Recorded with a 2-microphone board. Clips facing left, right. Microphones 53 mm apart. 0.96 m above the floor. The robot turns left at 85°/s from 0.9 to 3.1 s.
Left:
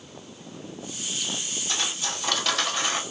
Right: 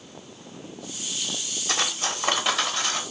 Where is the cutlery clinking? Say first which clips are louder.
Right 4 dB; 100° right, 1.1 m; by 3.0 s 150° left, 1.1 m.